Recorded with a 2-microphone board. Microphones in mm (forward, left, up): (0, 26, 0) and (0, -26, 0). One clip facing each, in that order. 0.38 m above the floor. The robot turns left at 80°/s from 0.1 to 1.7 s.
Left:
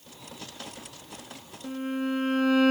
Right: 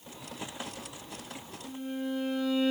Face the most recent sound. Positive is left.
turn(degrees=65)  # may be behind; listen again after turning